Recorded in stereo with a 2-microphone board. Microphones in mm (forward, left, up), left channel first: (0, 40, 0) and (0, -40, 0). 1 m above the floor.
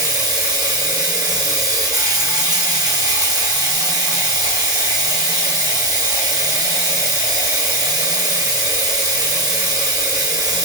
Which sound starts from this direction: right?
Running water, at 0.0 s.